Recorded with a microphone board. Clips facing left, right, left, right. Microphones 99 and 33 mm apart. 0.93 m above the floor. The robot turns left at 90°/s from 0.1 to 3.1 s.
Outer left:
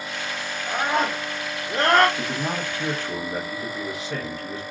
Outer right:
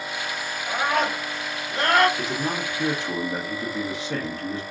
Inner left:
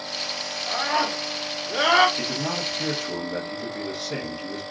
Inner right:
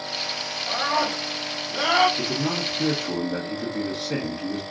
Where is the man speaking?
40° left, 1.4 m; by 4.6 s 45° right, 1.4 m.